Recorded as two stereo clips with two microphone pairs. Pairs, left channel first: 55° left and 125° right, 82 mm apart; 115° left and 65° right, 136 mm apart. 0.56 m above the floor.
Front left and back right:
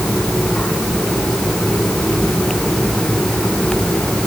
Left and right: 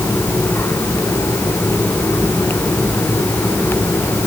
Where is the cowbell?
No cowbell in this recording.